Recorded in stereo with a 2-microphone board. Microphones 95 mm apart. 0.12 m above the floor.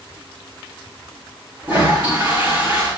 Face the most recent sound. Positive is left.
turn(degrees=-20)  # may be behind; listen again after turning